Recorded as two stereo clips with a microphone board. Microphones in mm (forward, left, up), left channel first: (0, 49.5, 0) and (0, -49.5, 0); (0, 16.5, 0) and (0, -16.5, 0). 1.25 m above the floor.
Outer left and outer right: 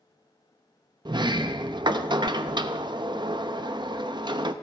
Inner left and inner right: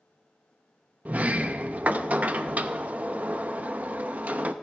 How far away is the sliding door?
About 0.7 m.